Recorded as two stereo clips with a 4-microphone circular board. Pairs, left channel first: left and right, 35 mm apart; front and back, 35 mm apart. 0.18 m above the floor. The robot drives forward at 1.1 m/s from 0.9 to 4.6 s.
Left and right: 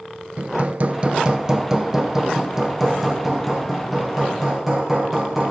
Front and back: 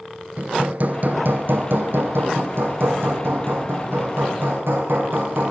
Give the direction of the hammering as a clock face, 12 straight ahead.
5 o'clock.